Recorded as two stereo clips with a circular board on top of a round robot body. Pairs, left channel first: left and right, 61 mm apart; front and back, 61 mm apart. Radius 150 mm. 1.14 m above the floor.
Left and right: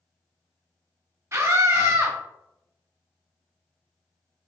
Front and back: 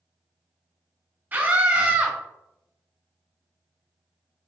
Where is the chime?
No chime in this recording.